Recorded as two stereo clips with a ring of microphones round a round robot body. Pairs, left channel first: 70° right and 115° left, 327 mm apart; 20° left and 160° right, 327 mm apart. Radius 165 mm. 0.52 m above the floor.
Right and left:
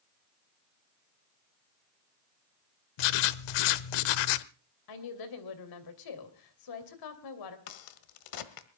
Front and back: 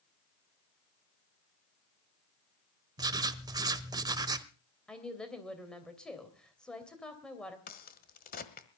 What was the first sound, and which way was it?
Writing, 80° right.